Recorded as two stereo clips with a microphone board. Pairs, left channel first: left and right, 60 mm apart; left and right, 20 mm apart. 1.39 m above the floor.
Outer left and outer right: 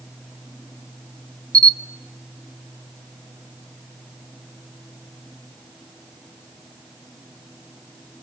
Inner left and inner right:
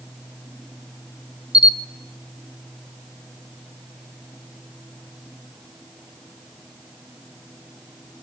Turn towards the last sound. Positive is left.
turn(degrees=-75)  # may be behind; listen again after turning